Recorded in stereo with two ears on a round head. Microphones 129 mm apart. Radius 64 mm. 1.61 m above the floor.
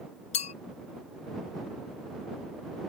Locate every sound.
0.3 s a clink: 45° left (ahead or behind)